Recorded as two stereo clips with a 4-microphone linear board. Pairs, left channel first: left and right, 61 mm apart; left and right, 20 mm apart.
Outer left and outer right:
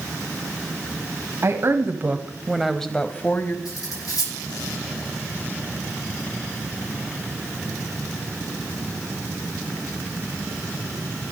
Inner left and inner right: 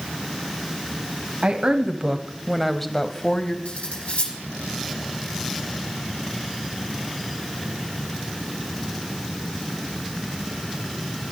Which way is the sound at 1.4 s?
50° right (ahead or behind).